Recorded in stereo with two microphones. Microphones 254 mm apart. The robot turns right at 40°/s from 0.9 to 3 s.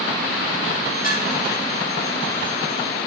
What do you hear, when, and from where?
1.0 s dishes clattering: 35° left (ahead or behind), 2 m; by 1.2 s 25° left (ahead or behind), 2 m